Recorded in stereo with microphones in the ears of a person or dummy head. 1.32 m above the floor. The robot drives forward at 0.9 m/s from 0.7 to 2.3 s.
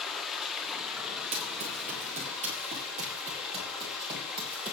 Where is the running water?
Centre (ahead or behind), 1.3 m.